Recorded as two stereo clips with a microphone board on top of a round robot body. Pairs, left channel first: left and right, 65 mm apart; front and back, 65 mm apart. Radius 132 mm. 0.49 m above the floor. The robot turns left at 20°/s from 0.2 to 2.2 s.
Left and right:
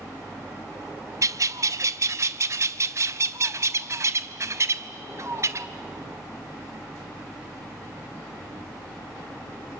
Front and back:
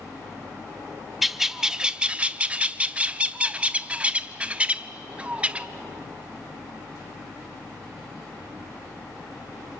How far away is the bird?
About 0.8 m.